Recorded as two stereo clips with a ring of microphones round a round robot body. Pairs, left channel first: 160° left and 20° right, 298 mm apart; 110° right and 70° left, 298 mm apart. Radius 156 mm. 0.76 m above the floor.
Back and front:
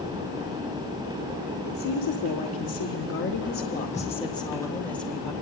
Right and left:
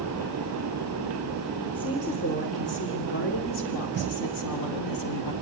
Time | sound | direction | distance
1.6 | a woman speaking | 175° left | 3 m